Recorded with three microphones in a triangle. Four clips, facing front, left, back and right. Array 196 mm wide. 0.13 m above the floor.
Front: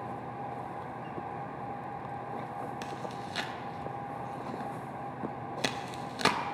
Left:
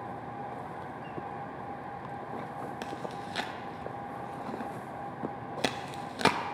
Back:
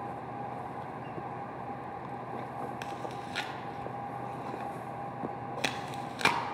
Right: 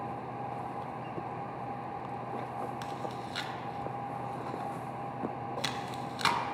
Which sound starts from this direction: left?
Chewing, at 2.8 s.